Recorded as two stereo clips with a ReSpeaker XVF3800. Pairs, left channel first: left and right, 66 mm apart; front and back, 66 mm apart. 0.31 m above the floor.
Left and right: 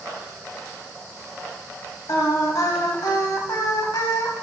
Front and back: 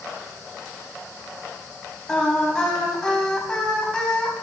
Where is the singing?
80° left, 0.6 m.